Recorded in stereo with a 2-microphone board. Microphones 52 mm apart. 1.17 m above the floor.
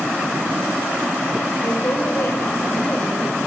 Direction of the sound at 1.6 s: 60° left (ahead or behind).